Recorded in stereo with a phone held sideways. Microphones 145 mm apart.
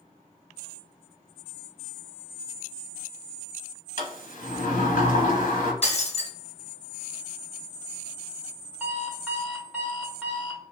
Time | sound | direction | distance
4.0 | a sliding door | 65° left (ahead or behind) | 1.1 m
5.8 | breaking glass | 45° left (ahead or behind) | 1.7 m
8.8 | an alarm clock | 10° right (ahead or behind) | 1.7 m